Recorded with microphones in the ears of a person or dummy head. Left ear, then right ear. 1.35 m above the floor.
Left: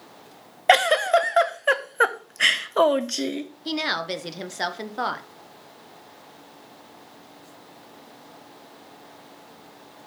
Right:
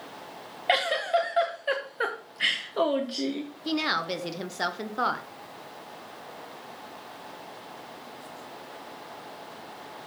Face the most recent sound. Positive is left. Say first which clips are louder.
# left 1 dB
turn(degrees=10)  # may be behind; listen again after turning